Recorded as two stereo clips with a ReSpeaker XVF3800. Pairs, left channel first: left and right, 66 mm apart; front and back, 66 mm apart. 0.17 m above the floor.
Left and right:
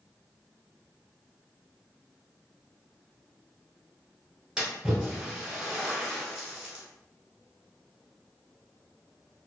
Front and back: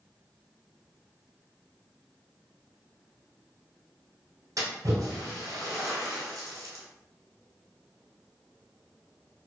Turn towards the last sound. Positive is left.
turn(degrees=-165)